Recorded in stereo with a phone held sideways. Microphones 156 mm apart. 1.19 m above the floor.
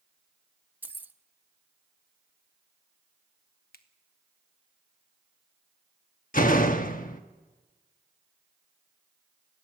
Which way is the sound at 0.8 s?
10° right (ahead or behind).